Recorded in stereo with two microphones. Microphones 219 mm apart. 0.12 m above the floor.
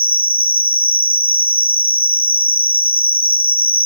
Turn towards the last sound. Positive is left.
turn(degrees=-25)  # may be behind; listen again after turning